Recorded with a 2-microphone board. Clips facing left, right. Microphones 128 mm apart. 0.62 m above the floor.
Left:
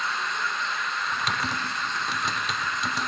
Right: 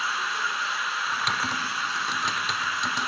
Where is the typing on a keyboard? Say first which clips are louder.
Even; centre (ahead or behind), 0.5 m.